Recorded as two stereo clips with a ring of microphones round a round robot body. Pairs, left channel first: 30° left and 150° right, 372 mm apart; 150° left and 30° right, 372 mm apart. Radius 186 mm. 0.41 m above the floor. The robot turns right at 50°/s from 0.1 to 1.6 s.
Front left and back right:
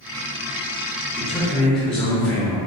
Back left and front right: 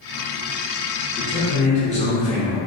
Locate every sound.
1.2 s a man speaking: 95° left, 0.7 m; by 2.6 s 115° left, 0.7 m